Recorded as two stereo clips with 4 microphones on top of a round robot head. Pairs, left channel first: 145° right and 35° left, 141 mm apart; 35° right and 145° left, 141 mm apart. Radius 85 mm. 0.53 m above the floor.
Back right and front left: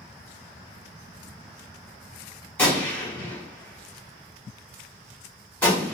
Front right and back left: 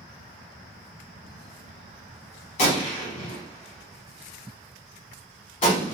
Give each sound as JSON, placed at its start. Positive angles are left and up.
{"t": 2.6, "sound": "a gunshot", "azimuth_deg": -65, "distance_m": 1.6}